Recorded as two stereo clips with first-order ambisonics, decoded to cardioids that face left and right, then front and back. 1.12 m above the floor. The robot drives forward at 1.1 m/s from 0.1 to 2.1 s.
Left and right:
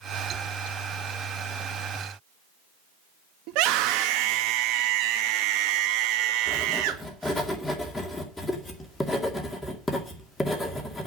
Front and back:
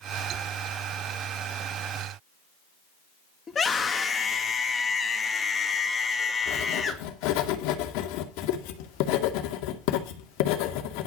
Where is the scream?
70° right, 1.7 m.